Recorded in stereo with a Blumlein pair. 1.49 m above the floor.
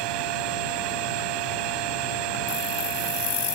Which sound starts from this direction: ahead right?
A machine running, at 0.0 s.